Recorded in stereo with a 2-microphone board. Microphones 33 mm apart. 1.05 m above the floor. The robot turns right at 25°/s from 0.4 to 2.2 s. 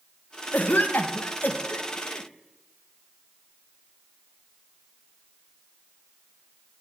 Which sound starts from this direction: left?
A cough, at 0.5 s.